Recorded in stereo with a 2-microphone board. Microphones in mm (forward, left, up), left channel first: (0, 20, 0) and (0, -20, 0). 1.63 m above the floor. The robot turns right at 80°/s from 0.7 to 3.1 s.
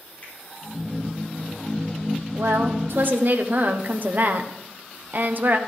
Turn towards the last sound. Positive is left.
turn(degrees=-50)